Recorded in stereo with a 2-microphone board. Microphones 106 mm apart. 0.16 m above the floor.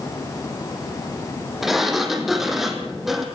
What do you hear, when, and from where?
1.6 s a sliding door: 5° right (ahead or behind), 3 m